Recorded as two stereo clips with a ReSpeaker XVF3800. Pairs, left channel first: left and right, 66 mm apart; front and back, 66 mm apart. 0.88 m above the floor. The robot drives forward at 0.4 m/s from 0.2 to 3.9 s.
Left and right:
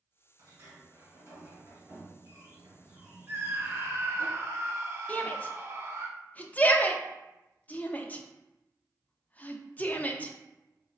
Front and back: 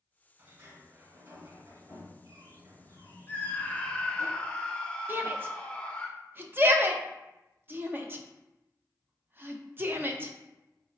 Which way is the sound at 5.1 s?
145° left.